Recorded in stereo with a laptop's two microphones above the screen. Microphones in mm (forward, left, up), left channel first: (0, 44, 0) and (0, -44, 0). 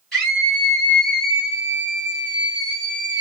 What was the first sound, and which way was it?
A scream, centre (ahead or behind).